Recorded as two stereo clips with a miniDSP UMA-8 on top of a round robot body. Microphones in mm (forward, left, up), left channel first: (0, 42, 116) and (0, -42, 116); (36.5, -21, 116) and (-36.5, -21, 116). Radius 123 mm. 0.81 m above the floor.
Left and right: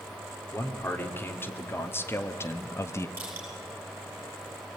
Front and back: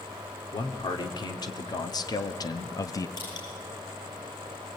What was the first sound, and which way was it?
A man speaking, 25° left.